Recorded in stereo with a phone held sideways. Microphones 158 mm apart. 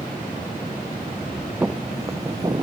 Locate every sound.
1.6 s footsteps: 10° right (ahead or behind); by 2.6 s 30° right (ahead or behind)